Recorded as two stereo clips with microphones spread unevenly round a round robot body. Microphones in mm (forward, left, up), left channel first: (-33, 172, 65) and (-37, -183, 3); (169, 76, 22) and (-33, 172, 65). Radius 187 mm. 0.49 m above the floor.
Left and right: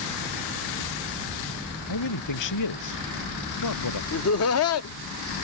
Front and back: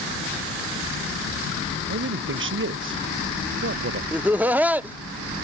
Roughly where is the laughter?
Ahead left.